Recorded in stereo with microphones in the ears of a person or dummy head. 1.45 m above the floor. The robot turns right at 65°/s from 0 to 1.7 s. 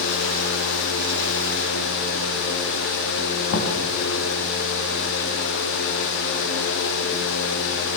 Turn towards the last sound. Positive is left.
turn(degrees=60)  # may be behind; listen again after turning